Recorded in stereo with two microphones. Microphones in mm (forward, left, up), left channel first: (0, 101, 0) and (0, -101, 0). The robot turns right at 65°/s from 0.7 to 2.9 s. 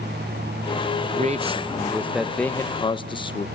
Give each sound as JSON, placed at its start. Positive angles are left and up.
{"t": 1.0, "sound": "a man speaking", "azimuth_deg": -80, "distance_m": 0.7}